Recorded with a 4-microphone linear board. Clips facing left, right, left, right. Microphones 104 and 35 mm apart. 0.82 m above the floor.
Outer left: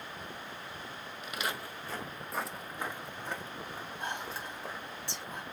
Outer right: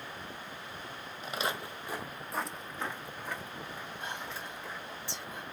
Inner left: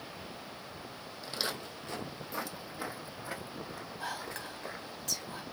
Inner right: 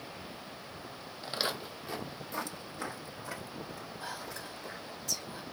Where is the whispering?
65° left (ahead or behind), 1.9 m.